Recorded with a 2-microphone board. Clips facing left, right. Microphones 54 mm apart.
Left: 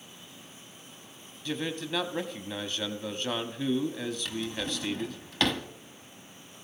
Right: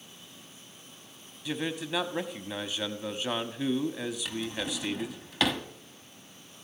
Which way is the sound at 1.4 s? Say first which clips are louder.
Even; 10° right (ahead or behind).